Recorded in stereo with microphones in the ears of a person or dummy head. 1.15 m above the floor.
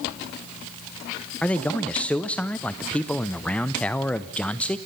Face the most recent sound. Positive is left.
turn(degrees=0)  # may be behind; listen again after turning